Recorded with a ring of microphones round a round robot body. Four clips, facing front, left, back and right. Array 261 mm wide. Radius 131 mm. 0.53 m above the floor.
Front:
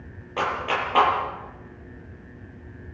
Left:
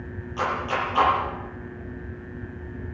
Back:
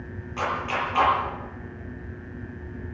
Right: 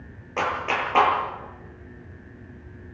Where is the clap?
55° right, 10 m.